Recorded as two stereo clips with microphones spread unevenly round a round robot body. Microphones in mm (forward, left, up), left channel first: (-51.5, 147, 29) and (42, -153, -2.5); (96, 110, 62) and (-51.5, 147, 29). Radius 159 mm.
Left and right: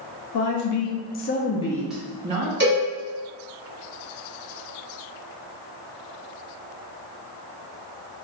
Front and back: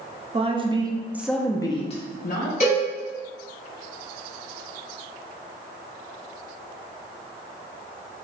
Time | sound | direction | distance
0.3 | a woman speaking | 130° left | 0.8 m
2.6 | a cowbell | 50° right | 1.4 m